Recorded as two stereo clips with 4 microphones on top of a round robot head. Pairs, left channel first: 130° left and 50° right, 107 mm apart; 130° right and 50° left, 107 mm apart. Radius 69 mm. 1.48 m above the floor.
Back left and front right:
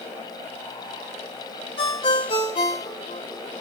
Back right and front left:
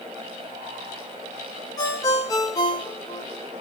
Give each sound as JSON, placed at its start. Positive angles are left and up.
{"t": 1.8, "sound": "a ringtone", "azimuth_deg": 170, "distance_m": 3.5}